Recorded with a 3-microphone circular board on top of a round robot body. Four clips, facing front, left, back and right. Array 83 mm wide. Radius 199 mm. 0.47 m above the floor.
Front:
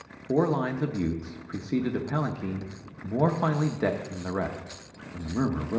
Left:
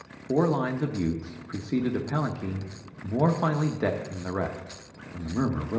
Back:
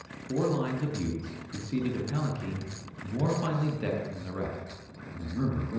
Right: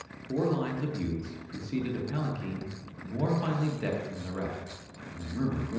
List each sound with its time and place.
0.3 s a man speaking: 45° left, 1.1 m